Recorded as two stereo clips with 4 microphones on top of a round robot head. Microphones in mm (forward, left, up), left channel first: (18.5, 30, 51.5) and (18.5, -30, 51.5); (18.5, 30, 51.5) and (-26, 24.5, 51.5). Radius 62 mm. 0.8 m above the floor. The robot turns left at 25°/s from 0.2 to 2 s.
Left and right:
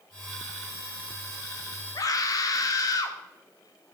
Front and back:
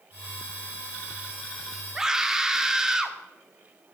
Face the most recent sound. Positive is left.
turn(degrees=110)